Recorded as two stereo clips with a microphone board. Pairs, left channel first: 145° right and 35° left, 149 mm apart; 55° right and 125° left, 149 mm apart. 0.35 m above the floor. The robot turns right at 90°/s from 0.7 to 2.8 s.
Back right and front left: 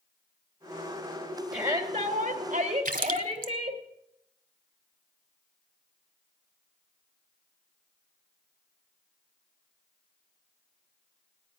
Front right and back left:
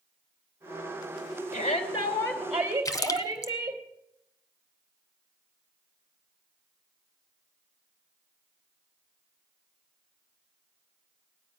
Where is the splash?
10° left, 0.9 m.